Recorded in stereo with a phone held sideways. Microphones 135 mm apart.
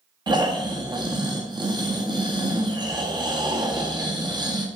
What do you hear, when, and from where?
0.3 s snoring: 30° right (ahead or behind), 1.5 m